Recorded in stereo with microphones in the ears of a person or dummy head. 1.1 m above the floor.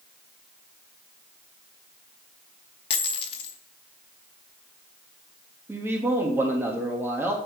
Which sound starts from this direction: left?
A dropped coin, at 2.9 s.